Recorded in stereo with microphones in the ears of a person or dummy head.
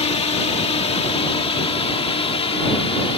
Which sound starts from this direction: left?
A drone, at 0.0 s.